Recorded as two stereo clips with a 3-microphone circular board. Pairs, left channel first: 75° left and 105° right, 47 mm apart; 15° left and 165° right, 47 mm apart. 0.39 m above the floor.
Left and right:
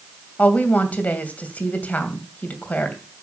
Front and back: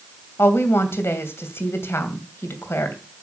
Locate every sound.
0.4 s a woman speaking: 25° left, 2.5 m